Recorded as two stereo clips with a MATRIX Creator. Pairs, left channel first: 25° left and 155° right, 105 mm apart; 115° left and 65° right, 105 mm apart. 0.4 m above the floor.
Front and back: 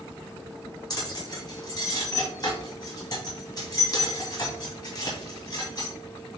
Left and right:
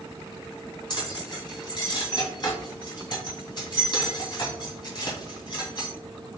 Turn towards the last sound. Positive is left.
turn(degrees=70)